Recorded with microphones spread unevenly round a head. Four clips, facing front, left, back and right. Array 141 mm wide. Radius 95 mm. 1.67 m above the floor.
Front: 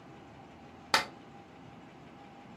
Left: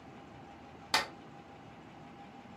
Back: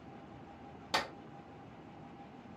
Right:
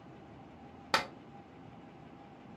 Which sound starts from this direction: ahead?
A clap, at 0.9 s.